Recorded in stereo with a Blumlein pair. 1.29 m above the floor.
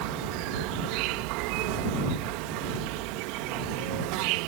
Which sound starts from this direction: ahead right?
An insect, at 0.0 s.